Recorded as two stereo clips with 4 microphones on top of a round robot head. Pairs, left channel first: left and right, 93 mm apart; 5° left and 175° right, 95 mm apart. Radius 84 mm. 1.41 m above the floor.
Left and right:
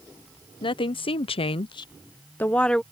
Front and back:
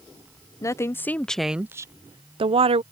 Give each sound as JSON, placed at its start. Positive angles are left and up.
{"t": 0.6, "sound": "a woman speaking", "azimuth_deg": 60}